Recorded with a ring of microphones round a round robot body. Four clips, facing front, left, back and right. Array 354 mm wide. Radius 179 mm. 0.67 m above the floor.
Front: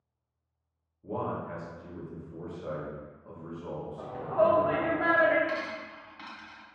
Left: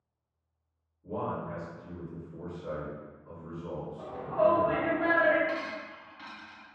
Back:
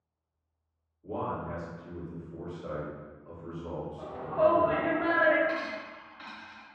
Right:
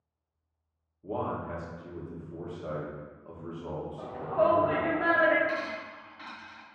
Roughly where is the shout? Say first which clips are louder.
Even, even; ahead right.